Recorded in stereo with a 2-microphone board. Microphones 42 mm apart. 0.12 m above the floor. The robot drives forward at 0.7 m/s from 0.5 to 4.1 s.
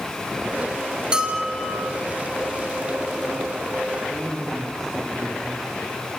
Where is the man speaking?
10° left (ahead or behind), 6 m.